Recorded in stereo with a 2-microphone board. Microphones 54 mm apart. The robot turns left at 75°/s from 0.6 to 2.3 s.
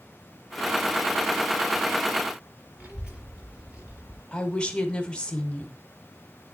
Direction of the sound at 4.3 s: 20° left (ahead or behind).